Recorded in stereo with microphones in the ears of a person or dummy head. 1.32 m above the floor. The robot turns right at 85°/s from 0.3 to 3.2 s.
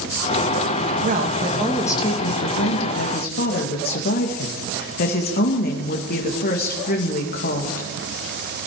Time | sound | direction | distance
1.0 | a woman speaking | 55° right | 1.8 m